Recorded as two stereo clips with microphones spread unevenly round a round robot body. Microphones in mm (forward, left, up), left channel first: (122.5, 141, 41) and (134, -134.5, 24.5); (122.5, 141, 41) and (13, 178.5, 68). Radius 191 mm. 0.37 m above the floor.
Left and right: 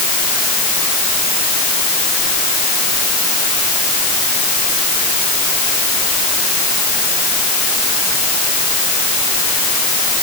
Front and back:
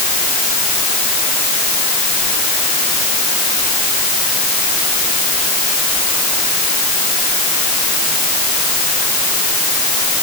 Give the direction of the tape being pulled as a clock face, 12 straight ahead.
I don't hear tape being pulled.